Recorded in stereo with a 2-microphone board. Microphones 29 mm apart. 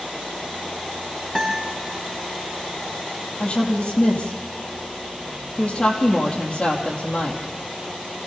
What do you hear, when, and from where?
1.4 s a guitar: 10° right (ahead or behind), 6 m
3.4 s a woman speaking: 30° left (ahead or behind), 4 m